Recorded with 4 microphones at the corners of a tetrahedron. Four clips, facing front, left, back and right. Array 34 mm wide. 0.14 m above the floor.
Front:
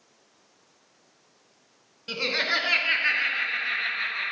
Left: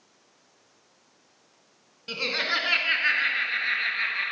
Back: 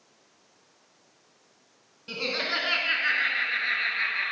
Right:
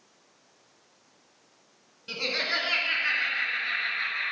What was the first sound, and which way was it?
Laughter, 45° left.